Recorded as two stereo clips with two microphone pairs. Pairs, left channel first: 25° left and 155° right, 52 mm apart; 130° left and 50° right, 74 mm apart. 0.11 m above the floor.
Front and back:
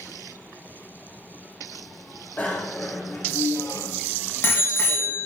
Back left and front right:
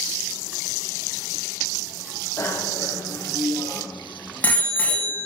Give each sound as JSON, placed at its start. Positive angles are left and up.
{"t": 2.4, "sound": "a bicycle bell", "azimuth_deg": 80, "distance_m": 4.0}